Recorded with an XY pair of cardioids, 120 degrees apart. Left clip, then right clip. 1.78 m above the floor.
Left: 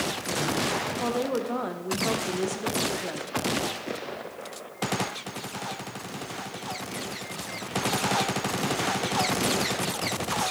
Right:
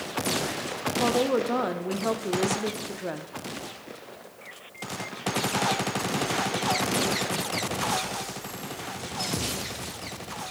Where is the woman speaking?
25° right, 0.6 m.